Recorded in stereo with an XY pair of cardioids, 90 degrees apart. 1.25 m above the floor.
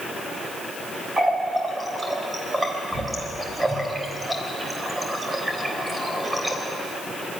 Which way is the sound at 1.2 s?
15° right.